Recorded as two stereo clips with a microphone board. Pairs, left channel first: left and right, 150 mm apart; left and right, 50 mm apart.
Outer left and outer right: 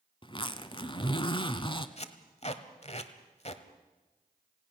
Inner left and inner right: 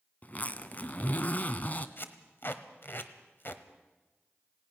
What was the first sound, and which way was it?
A zipper, 35° left (ahead or behind).